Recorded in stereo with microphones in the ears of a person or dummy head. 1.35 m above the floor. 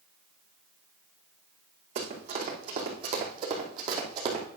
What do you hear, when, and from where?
1.9 s running footsteps: 35° right (ahead or behind), 3.5 m; by 4.5 s 25° right (ahead or behind), 2.5 m